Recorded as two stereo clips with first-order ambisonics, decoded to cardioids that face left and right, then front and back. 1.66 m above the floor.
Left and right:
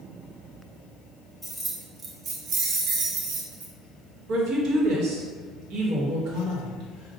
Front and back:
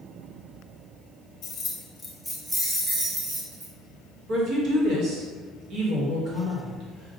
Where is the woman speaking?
135° right, 1.4 m.